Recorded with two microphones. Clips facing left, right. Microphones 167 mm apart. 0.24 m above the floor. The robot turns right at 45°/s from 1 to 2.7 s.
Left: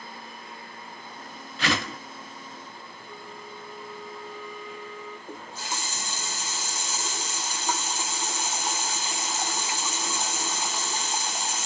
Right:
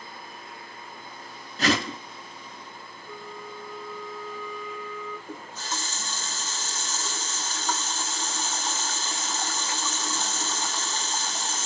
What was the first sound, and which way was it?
A whoosh, 45° right (ahead or behind).